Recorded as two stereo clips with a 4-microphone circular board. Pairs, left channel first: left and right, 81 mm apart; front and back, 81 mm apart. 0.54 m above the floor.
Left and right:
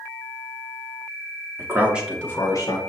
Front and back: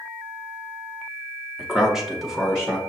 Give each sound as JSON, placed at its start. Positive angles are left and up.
{"t": 1.6, "sound": "a man speaking", "azimuth_deg": -95, "distance_m": 0.9}